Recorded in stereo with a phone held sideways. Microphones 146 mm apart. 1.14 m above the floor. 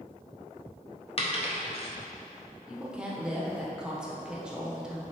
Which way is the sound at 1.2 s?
40° left (ahead or behind).